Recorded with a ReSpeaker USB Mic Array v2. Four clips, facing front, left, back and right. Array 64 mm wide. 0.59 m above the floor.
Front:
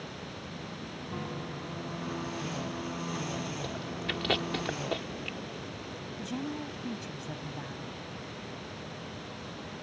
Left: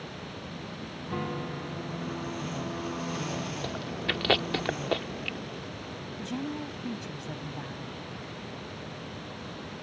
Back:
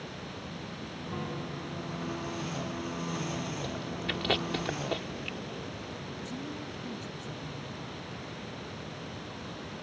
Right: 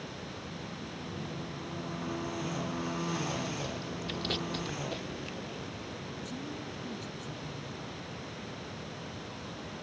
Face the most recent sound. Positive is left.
turn(degrees=50)